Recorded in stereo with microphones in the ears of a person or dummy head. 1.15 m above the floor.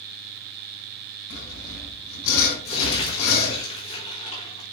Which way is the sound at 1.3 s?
70° left (ahead or behind).